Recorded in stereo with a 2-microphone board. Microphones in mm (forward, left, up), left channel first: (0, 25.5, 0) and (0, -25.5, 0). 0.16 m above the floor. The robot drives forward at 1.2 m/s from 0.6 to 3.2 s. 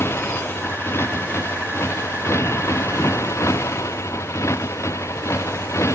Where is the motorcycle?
50° left (ahead or behind); by 6.0 s 65° left (ahead or behind).